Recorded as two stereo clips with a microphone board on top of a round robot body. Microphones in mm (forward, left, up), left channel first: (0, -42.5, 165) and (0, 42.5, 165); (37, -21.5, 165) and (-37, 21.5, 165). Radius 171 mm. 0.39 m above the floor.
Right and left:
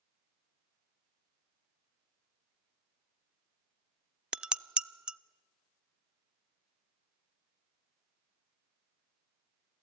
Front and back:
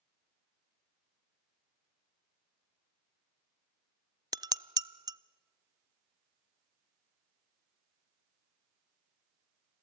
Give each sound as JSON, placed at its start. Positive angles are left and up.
{"t": 4.3, "sound": "dishes clattering", "azimuth_deg": 170, "distance_m": 0.5}